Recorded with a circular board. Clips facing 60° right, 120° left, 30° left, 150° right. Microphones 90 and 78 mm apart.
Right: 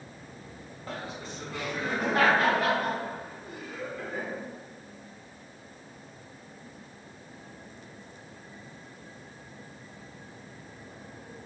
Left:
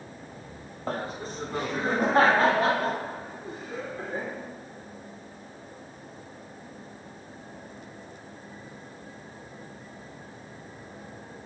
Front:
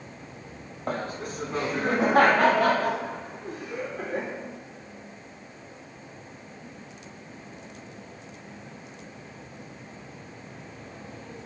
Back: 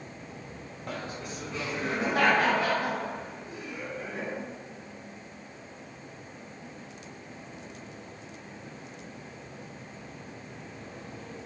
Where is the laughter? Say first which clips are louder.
Left 6 dB, front 6 dB; 80° left, 1.3 m; by 4.3 s 65° left, 5 m.